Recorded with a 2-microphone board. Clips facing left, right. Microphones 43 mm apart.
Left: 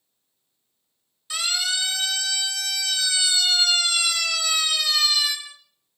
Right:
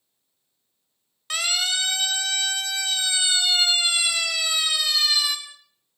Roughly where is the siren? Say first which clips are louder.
Right 1 dB; right.